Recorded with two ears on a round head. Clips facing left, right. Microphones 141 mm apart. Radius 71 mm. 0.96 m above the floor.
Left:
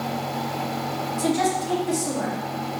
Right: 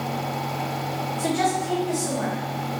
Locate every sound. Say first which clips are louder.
1.2 s a woman speaking: left 1 dB; 50° left (ahead or behind), 1.2 m